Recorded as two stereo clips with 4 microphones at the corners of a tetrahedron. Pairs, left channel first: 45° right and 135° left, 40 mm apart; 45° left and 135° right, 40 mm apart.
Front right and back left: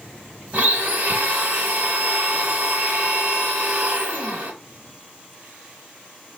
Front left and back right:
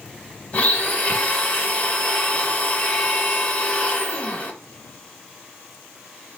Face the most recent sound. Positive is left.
turn(degrees=90)